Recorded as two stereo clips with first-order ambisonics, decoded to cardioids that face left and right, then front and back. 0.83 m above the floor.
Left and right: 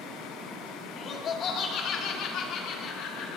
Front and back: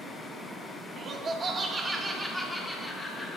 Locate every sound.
1.0 s laughter: 140° left, 1.3 m; by 3.4 s 70° left, 1.8 m